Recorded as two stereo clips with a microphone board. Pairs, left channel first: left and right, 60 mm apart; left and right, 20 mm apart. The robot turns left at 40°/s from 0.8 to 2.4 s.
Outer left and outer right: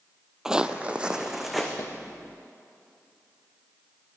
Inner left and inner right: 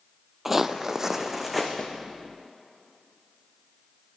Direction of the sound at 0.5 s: 10° right (ahead or behind).